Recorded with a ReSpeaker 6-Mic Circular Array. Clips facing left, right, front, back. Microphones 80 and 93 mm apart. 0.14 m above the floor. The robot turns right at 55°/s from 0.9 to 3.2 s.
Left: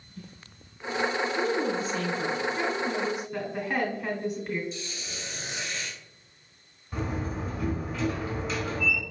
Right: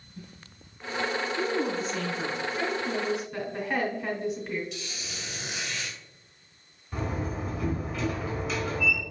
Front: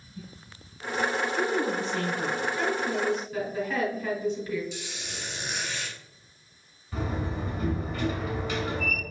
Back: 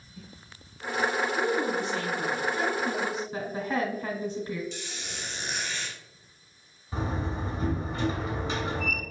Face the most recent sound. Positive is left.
turn(degrees=180)